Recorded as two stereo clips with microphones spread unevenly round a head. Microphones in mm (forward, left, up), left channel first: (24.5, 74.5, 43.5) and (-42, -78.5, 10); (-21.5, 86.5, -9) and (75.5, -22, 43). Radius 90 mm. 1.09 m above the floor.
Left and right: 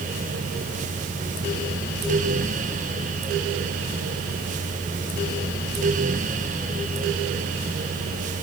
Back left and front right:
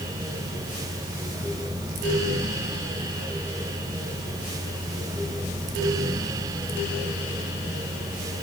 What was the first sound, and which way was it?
Only background noise.